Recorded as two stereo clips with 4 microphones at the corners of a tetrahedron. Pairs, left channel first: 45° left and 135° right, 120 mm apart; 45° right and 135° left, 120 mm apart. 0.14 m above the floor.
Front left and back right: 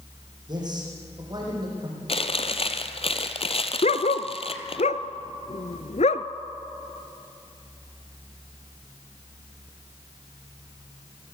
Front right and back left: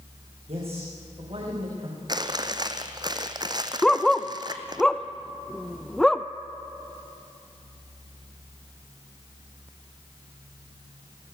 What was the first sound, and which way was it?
A man speaking, 170° left.